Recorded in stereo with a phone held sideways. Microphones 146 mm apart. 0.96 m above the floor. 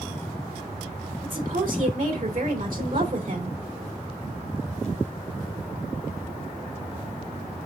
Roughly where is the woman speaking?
Right.